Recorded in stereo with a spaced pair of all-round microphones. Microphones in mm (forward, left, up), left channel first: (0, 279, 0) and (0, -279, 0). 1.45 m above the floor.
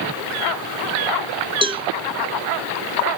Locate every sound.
1.6 s a cowbell: 10° right (ahead or behind), 0.7 m